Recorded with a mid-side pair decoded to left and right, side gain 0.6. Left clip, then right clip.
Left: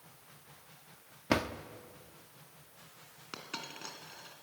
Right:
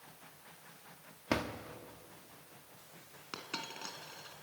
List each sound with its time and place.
1.3 s a drawer: 25° left, 1.0 m
3.3 s a dropped coin: straight ahead, 3 m